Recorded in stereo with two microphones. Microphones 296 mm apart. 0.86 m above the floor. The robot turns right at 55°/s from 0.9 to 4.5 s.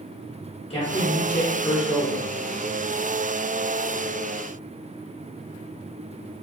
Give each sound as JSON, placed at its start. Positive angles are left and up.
{"t": 0.7, "sound": "a man speaking", "azimuth_deg": 140, "distance_m": 1.0}